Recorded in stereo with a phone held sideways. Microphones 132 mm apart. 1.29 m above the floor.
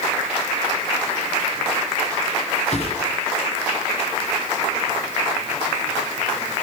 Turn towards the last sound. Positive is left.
turn(degrees=50)  # may be behind; listen again after turning